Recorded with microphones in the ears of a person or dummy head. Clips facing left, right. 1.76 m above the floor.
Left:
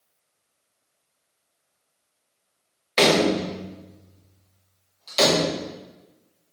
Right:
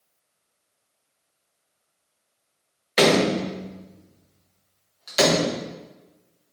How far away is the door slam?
About 1.4 m.